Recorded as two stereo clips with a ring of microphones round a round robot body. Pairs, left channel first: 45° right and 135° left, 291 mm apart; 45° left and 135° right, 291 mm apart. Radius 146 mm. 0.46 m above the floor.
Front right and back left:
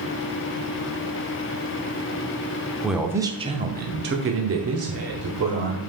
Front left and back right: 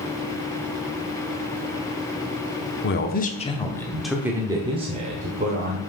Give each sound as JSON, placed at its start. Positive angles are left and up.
{"t": 2.8, "sound": "a man speaking", "azimuth_deg": 45, "distance_m": 0.8}